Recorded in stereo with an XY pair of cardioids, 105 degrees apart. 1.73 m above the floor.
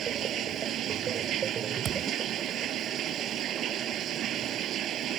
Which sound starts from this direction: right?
Running water, at 0.0 s.